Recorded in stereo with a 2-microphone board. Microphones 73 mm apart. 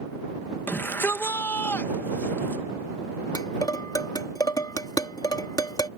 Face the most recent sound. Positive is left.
turn(degrees=60)  # may be behind; listen again after turning